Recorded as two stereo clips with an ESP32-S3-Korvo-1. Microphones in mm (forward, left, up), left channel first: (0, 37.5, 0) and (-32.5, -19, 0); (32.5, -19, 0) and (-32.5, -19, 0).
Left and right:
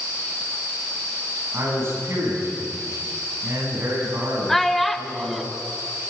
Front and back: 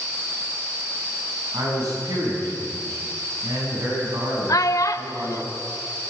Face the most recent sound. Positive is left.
turn(degrees=-30)